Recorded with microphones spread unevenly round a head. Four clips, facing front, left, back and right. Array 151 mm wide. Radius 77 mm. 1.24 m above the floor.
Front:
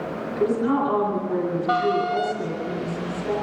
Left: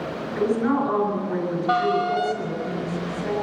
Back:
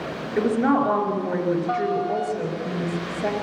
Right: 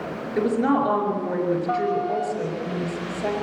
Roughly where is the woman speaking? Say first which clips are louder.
Right 1 dB, back 2 dB; behind right.